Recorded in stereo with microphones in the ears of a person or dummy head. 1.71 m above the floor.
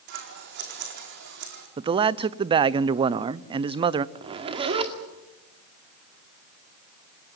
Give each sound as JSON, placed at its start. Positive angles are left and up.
{"t": 0.1, "sound": "scissors", "side_deg": -60, "distance_m": 4.0}
{"t": 1.8, "sound": "a man speaking", "side_deg": -25, "distance_m": 0.7}
{"t": 4.2, "sound": "a zipper", "side_deg": -30, "distance_m": 2.0}